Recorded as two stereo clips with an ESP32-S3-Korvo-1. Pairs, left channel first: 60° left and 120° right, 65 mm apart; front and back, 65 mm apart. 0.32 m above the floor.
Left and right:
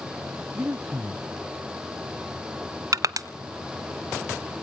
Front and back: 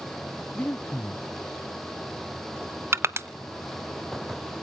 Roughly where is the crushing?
Behind right.